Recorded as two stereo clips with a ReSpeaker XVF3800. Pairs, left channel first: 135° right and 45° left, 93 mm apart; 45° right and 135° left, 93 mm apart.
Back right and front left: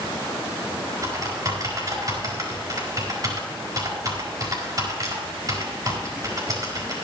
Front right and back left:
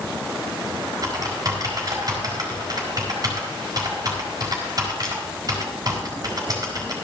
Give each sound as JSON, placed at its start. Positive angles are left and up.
{"t": 1.0, "sound": "typing on a keyboard", "azimuth_deg": 95, "distance_m": 4.0}